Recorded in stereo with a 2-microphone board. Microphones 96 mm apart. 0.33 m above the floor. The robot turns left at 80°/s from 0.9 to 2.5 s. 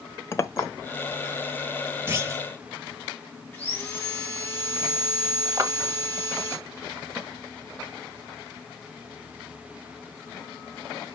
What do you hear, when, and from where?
0.3 s a clink: 30° left (ahead or behind), 0.9 m
2.1 s a clunk: 40° right, 1.3 m; by 2.5 s 70° right, 1.3 m
3.5 s sawing: 20° left (ahead or behind), 3.5 m
5.6 s a clap: 35° right (ahead or behind), 1.3 m